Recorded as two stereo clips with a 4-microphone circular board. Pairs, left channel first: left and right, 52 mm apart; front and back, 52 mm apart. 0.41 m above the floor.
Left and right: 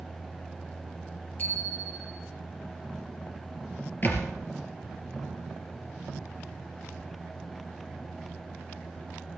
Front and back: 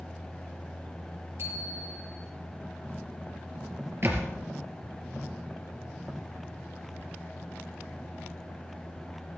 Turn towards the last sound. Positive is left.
turn(degrees=140)